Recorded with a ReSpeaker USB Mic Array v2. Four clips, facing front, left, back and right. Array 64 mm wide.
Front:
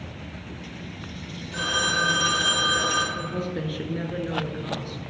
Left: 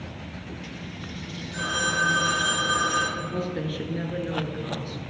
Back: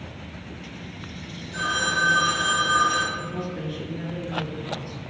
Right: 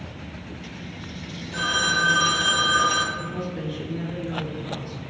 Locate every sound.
1.5 s a phone ringing: 55° right, 2.5 m
3.1 s a woman speaking: 40° left, 1.4 m